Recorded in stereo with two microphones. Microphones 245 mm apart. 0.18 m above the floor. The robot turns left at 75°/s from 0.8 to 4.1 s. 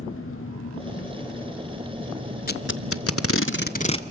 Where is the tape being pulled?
40° left (ahead or behind), 0.8 m; by 4.1 s 15° left (ahead or behind), 0.8 m.